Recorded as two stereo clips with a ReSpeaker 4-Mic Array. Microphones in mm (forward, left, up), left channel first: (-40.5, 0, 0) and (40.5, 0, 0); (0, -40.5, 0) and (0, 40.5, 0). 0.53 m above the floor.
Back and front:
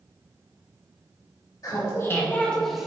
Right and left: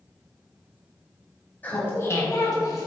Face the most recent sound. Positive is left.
turn(degrees=-80)